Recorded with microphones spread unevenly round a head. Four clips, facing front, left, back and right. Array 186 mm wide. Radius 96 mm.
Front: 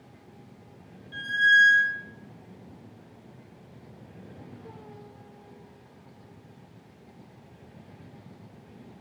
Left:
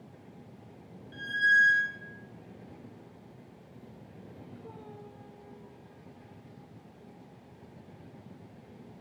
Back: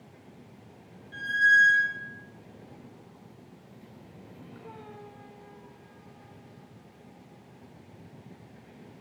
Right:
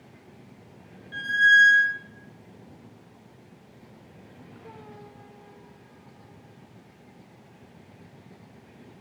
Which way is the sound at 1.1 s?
80° right.